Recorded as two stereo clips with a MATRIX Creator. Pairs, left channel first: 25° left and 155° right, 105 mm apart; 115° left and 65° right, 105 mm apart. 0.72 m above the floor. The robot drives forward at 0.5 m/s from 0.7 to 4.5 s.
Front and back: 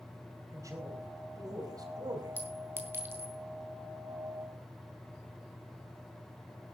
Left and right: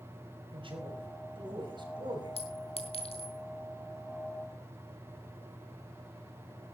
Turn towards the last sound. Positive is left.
turn(degrees=140)